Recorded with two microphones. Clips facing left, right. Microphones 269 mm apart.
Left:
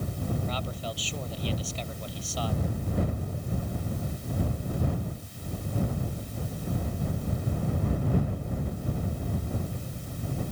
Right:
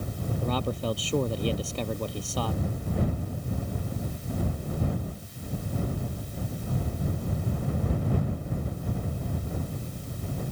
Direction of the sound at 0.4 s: 55° right (ahead or behind).